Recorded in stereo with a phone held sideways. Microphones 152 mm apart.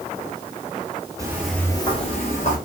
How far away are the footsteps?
About 1.1 m.